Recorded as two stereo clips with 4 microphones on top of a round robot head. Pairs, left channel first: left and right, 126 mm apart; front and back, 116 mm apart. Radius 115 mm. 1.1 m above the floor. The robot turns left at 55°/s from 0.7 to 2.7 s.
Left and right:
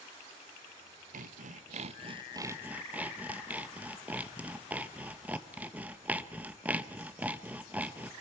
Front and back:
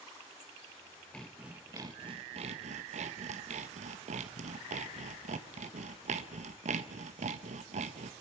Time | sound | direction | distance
1.1 | sawing | 80° right | 1.2 m